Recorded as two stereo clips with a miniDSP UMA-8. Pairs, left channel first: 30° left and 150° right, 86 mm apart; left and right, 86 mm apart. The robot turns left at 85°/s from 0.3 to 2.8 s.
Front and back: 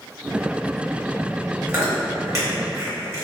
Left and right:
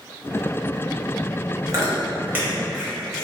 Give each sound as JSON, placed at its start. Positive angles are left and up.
{"t": 1.7, "sound": "chewing", "azimuth_deg": -90, "distance_m": 0.9}